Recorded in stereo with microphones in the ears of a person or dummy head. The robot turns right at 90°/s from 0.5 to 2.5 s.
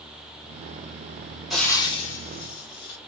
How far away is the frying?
About 0.7 m.